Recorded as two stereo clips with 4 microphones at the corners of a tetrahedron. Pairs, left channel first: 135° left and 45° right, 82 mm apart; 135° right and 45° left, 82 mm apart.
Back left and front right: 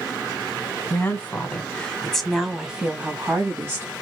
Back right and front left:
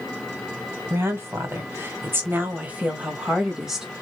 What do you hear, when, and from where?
0.9 s a woman speaking: 85° left, 1.4 m; by 3.9 s 40° right, 1.2 m